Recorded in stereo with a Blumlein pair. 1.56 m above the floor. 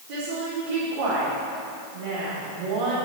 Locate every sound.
0.1 s a woman speaking: 55° right, 3.5 m